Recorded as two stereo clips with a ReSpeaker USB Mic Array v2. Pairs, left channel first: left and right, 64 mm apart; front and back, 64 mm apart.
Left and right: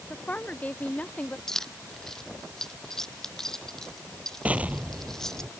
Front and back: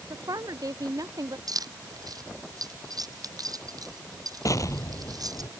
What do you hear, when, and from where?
0.1 s a woman speaking: 155° left
1.5 s keys jangling: 170° left
4.5 s an explosion: 25° right